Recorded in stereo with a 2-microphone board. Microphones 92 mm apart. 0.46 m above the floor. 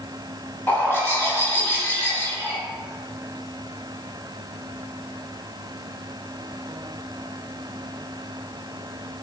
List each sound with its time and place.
0.7 s a bird: 25° left (ahead or behind), 1.0 m